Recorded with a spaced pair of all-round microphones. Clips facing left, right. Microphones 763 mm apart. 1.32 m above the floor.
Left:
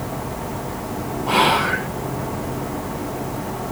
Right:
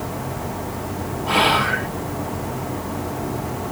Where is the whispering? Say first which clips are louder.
Left 1 dB; 15° right (ahead or behind), 1.3 m.